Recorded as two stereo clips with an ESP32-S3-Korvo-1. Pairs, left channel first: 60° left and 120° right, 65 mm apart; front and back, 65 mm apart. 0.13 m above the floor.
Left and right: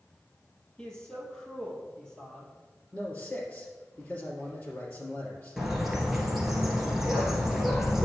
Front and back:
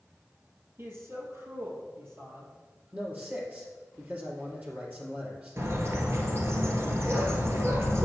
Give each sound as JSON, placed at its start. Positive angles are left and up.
{"t": 0.8, "sound": "a man speaking", "azimuth_deg": 140, "distance_m": 2.5}
{"t": 2.9, "sound": "a man speaking", "azimuth_deg": 125, "distance_m": 2.5}
{"t": 5.6, "sound": "a bird", "azimuth_deg": 155, "distance_m": 1.8}